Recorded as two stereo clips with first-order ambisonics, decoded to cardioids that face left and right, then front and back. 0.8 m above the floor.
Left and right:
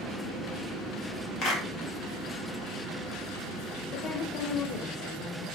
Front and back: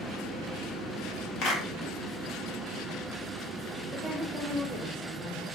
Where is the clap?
45° left, 1.8 m.